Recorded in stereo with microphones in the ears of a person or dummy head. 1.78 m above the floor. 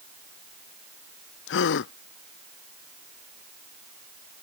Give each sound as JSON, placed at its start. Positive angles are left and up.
{"t": 1.5, "sound": "a gasp", "side_deg": 65}